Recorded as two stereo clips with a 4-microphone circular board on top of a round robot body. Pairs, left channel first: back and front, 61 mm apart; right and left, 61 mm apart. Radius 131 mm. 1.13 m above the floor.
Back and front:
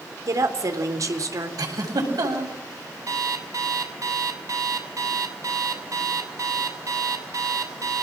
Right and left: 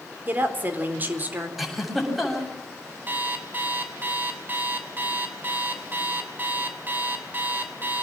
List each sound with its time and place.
0.3 s a woman speaking: 30° left, 4 m
1.6 s a giggle: straight ahead, 8 m
3.1 s an alarm clock: 30° left, 3 m